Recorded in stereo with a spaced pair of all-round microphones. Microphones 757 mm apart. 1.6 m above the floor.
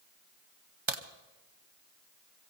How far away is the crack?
About 1.0 m.